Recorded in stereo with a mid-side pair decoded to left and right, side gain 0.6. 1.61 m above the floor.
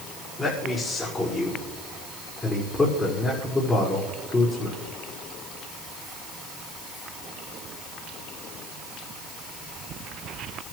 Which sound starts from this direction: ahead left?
A man speaking, at 0.4 s.